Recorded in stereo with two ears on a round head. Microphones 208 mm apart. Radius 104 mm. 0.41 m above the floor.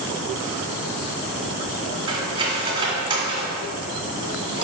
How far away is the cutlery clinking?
About 2.5 m.